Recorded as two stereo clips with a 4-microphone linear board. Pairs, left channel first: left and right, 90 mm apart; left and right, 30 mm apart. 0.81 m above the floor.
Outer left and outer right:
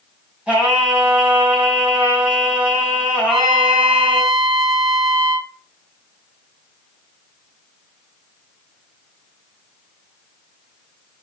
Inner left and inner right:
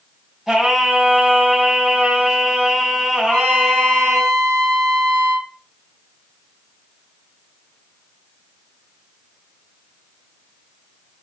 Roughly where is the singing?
Centre.